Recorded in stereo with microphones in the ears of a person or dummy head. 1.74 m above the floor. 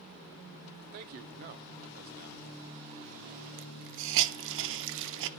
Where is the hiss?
65° right (ahead or behind), 0.7 m.